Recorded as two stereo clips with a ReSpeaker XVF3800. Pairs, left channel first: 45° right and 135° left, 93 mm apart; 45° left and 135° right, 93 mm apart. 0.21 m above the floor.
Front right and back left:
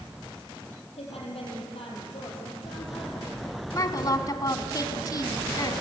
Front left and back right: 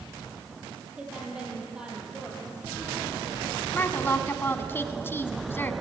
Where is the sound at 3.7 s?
15° right, 1.3 m.